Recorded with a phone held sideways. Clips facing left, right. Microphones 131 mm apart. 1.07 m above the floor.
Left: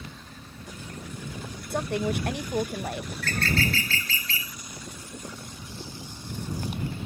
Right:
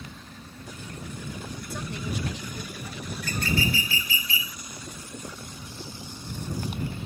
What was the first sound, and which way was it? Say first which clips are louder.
A fan: even; 5° right (ahead or behind).